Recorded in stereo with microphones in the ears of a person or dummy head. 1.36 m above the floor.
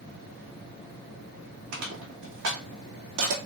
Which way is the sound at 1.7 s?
80° right.